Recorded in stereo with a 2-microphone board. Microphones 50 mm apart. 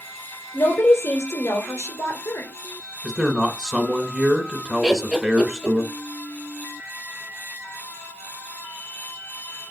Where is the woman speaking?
60° left (ahead or behind), 2.5 m.